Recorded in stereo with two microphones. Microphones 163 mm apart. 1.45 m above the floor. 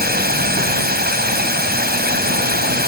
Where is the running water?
75° right (ahead or behind).